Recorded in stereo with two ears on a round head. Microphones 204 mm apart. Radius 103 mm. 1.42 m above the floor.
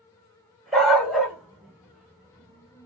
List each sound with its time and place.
0.7 s a dog barking: centre (ahead or behind), 1.4 m; by 2.9 s 5° right (ahead or behind), 1.1 m